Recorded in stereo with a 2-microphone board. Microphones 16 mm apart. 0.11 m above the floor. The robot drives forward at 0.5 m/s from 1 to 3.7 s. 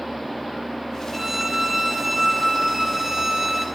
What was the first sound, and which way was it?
A violin, 15° right (ahead or behind).